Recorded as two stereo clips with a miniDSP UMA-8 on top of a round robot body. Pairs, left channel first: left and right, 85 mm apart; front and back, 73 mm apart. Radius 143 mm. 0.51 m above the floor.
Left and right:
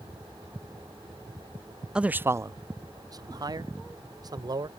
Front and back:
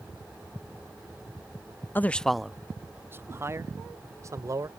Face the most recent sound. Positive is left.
turn(degrees=-135)